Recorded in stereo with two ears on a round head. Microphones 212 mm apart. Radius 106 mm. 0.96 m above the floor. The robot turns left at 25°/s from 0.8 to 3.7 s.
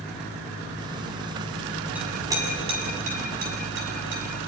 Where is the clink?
5° right (ahead or behind), 6 m; by 4.2 s 50° right (ahead or behind), 6 m.